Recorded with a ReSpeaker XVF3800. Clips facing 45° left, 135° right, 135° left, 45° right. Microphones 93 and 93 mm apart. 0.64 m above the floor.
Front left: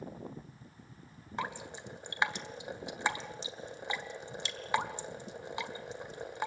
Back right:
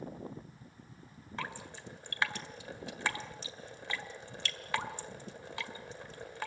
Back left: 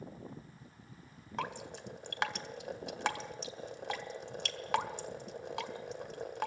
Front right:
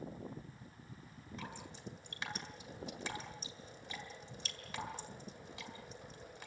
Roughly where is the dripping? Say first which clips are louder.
Front left 4 dB, back left 10 dB; behind left.